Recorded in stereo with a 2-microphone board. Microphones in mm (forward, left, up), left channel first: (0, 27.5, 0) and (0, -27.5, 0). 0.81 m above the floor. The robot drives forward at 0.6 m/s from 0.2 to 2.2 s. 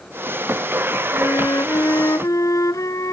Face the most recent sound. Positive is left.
turn(degrees=75)  # may be behind; listen again after turning